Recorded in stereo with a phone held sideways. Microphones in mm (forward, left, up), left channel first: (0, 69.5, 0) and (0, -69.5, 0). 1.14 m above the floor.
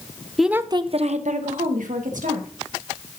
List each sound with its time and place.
0.4 s a woman speaking: centre (ahead or behind), 0.6 m; by 2.5 s 85° right, 2.0 m